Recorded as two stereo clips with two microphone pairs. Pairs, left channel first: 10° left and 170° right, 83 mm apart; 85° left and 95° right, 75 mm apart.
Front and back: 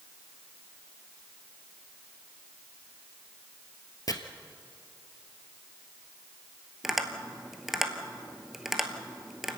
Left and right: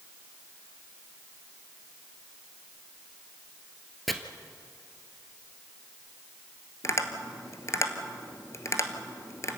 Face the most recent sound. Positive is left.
turn(degrees=100)